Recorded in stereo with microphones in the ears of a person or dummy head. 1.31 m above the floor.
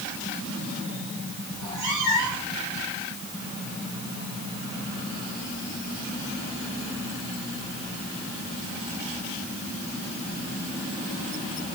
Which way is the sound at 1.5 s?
70° right (ahead or behind).